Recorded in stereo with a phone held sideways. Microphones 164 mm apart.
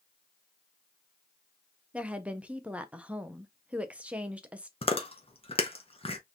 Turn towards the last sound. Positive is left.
turn(degrees=35)  # may be behind; listen again after turning